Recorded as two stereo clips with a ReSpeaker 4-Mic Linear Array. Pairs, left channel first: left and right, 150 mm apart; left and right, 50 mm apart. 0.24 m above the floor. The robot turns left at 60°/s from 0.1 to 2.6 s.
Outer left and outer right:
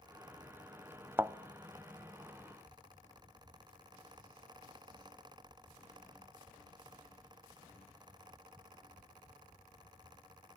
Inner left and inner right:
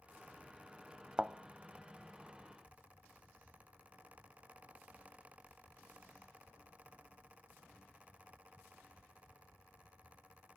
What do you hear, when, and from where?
1.2 s a thud: 15° right (ahead or behind), 0.5 m; by 1.4 s 20° right (ahead or behind), 0.5 m